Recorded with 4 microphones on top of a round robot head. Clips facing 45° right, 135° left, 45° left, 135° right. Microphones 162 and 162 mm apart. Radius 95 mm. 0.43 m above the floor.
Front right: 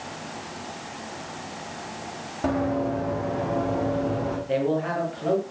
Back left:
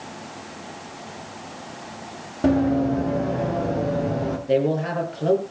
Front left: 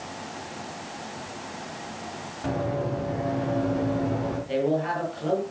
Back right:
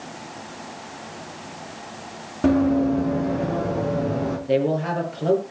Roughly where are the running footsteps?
Behind.